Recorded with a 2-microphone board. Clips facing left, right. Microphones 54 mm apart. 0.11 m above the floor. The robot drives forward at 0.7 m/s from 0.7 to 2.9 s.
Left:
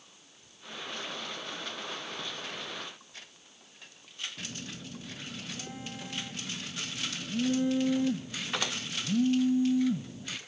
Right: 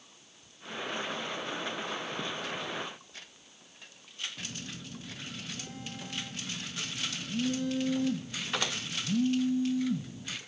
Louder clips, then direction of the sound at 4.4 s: Even; 15° left (ahead or behind).